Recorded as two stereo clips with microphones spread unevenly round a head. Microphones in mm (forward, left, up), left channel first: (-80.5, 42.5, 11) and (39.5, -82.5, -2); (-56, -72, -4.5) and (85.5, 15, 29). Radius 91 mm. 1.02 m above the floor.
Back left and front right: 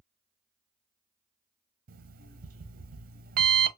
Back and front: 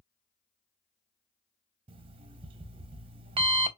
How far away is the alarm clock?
About 0.6 m.